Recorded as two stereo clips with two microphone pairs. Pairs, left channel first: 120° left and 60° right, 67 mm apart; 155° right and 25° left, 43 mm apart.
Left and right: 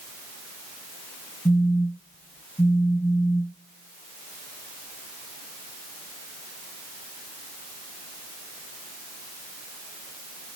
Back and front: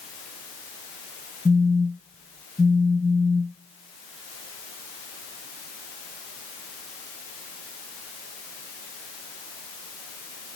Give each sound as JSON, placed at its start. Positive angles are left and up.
{"t": 1.4, "sound": "a phone buzzing", "azimuth_deg": 85, "distance_m": 2.5}